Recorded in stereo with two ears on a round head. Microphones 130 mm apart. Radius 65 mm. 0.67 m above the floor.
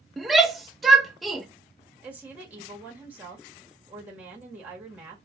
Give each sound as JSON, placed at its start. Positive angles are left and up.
{"t": 0.2, "sound": "a shout", "side_deg": 0, "distance_m": 0.7}
{"t": 2.0, "sound": "a woman speaking", "side_deg": -10, "distance_m": 0.9}